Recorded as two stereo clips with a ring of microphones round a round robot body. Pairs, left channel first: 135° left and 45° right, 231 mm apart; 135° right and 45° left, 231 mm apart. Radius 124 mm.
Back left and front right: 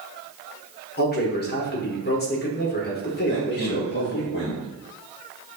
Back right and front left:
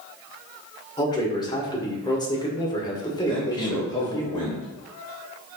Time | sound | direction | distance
1.0 | a man speaking | 160° left | 1.8 m
3.2 | a man speaking | 155° left | 2.5 m